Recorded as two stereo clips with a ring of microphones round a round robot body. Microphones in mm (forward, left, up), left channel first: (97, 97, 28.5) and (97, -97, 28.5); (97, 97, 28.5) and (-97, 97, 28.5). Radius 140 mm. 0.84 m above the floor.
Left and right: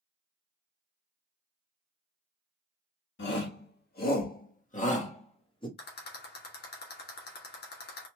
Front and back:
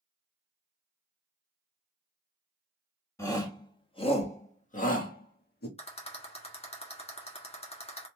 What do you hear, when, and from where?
3.2 s a shout: 75° left, 1.8 m; by 5.7 s 25° left, 1.8 m
5.8 s a rattle: 60° left, 2.0 m